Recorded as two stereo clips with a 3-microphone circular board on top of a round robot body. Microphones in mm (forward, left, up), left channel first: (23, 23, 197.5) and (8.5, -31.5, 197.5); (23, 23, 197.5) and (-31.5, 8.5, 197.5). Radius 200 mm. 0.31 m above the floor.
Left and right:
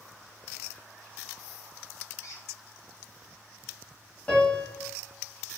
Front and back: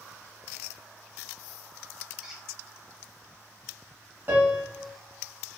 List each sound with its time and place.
2.2 s a squeak: 110° left, 1.0 m
4.3 s a piano: 140° left, 1.7 m